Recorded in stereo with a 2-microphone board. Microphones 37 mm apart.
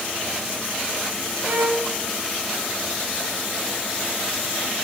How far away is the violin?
About 5.5 m.